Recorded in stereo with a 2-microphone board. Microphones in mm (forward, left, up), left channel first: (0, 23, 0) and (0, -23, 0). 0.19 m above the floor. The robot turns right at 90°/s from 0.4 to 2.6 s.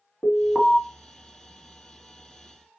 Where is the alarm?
15° left (ahead or behind), 1.4 m; by 0.8 s centre (ahead or behind), 1.4 m.